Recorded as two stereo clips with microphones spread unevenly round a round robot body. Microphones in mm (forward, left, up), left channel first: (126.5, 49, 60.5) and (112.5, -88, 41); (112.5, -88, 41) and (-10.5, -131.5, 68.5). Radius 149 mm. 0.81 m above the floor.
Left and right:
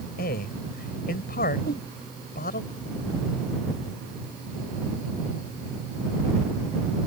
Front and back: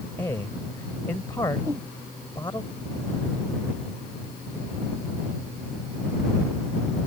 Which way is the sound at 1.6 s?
125° left.